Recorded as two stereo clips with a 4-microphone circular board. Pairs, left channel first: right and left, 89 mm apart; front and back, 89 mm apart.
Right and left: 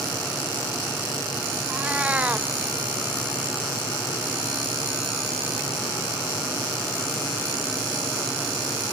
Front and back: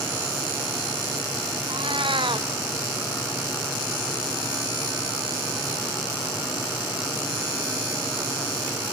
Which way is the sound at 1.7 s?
165° left.